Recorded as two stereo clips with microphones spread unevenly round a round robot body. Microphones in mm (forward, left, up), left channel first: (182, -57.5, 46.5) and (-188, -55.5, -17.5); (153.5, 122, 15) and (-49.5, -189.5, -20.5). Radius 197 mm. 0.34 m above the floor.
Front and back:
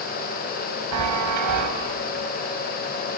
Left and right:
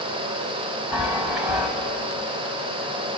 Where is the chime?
150° left, 1.5 m.